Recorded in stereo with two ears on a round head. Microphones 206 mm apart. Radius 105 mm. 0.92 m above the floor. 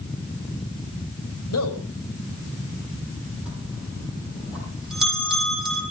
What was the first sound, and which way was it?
A man speaking, 75° left (ahead or behind).